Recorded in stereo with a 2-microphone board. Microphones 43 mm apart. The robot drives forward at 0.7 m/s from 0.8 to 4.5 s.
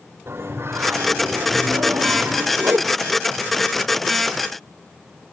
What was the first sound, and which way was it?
Singing, 65° right (ahead or behind).